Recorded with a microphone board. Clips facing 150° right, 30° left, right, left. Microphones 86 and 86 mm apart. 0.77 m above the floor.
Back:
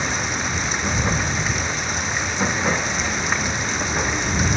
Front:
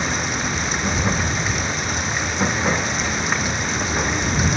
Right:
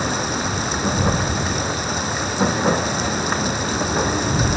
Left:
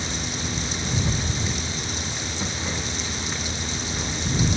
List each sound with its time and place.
0.0 s running water: 60° right